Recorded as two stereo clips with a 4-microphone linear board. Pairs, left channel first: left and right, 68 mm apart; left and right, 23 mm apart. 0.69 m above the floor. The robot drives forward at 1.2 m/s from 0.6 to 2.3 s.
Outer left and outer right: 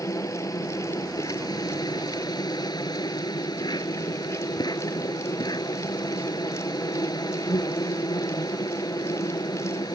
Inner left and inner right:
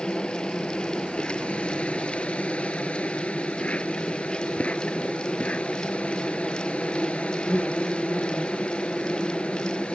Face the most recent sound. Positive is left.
turn(degrees=80)